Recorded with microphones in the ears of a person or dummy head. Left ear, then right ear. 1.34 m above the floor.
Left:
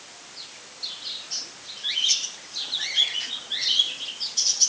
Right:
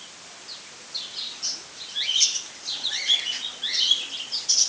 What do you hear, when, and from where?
Only background noise.